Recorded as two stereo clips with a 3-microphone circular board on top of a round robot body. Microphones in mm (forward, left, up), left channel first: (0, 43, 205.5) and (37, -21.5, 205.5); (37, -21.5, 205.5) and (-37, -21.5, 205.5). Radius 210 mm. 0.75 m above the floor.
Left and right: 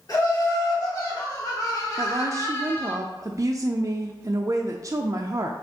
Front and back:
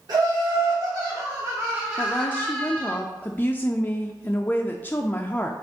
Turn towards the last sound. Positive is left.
turn(degrees=-55)